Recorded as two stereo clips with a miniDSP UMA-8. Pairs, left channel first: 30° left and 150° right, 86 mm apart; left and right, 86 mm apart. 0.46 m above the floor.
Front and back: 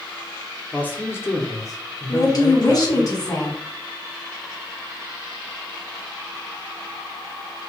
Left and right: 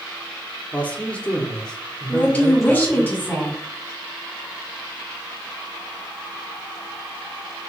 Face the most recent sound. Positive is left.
turn(degrees=25)